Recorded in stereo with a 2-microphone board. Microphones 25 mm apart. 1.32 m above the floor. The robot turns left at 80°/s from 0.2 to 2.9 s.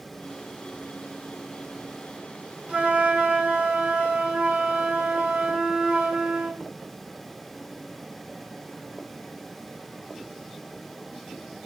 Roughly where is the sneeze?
I don't hear a sneeze.